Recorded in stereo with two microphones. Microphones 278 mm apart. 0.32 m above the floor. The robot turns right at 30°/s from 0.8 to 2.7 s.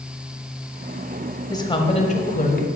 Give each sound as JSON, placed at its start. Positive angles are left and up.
{"t": 1.5, "sound": "a woman speaking", "azimuth_deg": 20, "distance_m": 1.2}